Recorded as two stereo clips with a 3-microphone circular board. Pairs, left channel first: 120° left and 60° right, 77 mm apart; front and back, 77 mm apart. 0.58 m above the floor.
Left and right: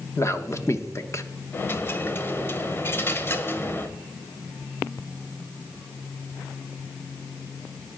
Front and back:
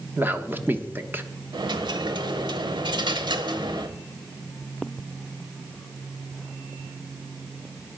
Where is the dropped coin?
Straight behind, 0.9 m.